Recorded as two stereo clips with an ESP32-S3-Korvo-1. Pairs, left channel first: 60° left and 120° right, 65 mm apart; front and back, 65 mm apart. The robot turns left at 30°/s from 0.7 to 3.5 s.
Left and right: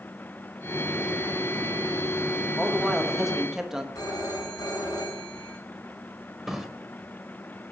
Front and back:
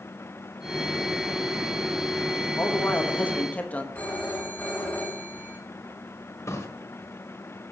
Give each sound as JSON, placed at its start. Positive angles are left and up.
{"t": 2.6, "sound": "a man speaking", "azimuth_deg": -15, "distance_m": 1.2}
{"t": 4.0, "sound": "a phone ringing", "azimuth_deg": 65, "distance_m": 4.0}
{"t": 6.5, "sound": "a drawer", "azimuth_deg": -35, "distance_m": 1.2}